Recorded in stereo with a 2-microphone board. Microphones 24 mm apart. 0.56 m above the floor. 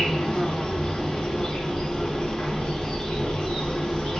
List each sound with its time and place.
0.0 s an insect: 45° left (ahead or behind), 1.5 m